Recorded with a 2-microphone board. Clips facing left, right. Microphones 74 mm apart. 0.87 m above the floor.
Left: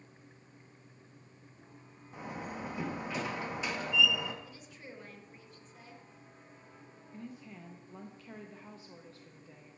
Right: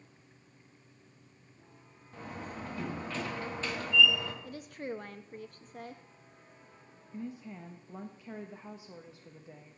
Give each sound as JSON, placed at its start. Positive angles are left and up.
{"t": 2.1, "sound": "a door slam", "side_deg": 10, "distance_m": 0.9}
{"t": 4.4, "sound": "a woman speaking", "side_deg": -50, "distance_m": 0.6}
{"t": 7.1, "sound": "a woman speaking", "side_deg": -15, "distance_m": 0.5}